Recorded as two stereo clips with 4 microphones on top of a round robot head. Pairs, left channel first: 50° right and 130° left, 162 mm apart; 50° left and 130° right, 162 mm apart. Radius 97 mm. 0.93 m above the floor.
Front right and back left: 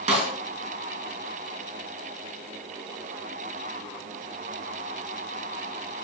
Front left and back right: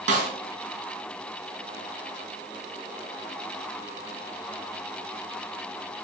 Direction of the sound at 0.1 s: Straight behind.